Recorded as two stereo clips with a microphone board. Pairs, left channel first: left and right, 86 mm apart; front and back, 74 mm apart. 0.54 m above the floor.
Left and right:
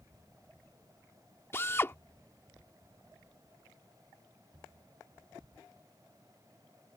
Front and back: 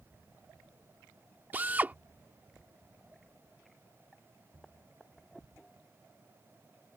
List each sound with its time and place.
1.5 s a drill: 130° left